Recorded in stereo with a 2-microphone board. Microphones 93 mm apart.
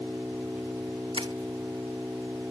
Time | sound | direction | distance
0.0 | an engine running | 15° right (ahead or behind) | ?
1.1 | crushing | 70° right (ahead or behind) | ?